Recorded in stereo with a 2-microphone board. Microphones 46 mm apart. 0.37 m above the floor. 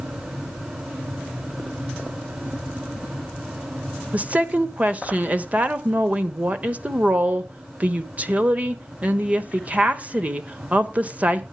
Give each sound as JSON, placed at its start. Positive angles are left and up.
{"t": 4.1, "sound": "a woman speaking", "side_deg": -30, "distance_m": 1.1}